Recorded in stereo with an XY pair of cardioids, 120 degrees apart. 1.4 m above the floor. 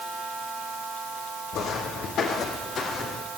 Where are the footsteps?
65° left, 5 m; by 3.2 s 50° left, 4.5 m.